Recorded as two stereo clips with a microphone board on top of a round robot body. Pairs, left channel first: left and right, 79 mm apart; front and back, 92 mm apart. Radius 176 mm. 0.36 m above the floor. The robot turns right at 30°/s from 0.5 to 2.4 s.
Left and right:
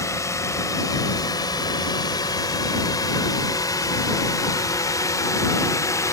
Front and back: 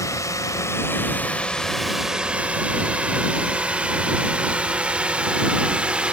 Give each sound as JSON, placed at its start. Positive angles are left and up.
{"t": 0.0, "sound": "a drone", "azimuth_deg": 50}